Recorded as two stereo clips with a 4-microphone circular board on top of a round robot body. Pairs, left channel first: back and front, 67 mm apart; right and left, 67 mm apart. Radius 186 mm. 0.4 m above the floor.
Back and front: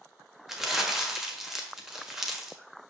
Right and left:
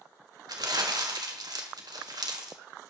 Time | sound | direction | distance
0.5 | crumpling | 85° left | 1.4 m